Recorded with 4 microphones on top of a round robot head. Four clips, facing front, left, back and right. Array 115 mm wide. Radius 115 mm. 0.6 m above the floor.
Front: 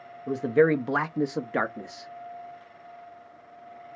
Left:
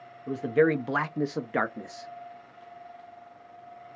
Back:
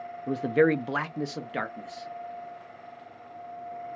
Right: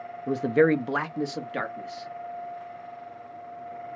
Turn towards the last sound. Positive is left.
turn(degrees=50)